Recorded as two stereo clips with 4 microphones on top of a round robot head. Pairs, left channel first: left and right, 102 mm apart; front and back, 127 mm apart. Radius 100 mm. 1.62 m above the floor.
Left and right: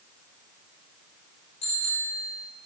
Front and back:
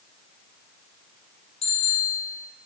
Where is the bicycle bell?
45° left, 5.5 m.